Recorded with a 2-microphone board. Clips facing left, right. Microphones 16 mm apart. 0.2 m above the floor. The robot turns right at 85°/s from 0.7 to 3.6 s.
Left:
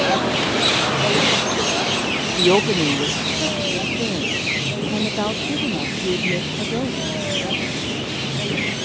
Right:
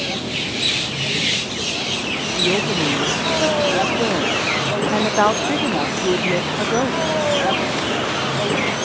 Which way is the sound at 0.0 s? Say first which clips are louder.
Left 5 dB; 55° left.